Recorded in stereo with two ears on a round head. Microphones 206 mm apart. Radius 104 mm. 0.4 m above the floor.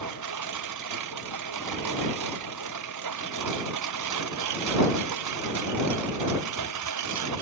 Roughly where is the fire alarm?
No fire alarm in this recording.